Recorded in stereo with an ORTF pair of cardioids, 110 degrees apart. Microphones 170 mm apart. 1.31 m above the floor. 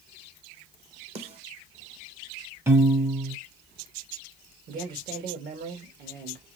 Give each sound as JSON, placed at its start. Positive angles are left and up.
{"t": 1.1, "sound": "a snare drum", "azimuth_deg": -40, "distance_m": 1.2}
{"t": 2.7, "sound": "a piano", "azimuth_deg": -15, "distance_m": 1.0}
{"t": 4.7, "sound": "a man speaking", "azimuth_deg": -60, "distance_m": 2.0}